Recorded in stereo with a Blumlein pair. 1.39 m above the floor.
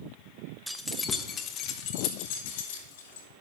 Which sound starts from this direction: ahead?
Keys jangling, at 0.7 s.